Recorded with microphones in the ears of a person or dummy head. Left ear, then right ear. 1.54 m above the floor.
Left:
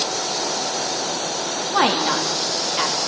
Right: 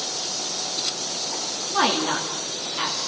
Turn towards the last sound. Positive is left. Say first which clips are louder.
# left 3 dB
turn(degrees=20)  # may be behind; listen again after turning